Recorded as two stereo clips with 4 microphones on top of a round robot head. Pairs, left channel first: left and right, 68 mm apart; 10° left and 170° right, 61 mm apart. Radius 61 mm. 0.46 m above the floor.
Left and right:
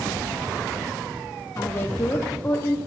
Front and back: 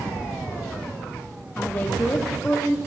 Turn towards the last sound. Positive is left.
turn(degrees=55)